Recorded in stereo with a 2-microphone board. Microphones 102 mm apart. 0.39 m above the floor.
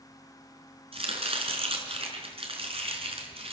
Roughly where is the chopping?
Right.